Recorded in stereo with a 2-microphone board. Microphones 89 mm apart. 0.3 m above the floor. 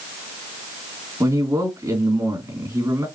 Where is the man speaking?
40° right (ahead or behind), 2.5 m.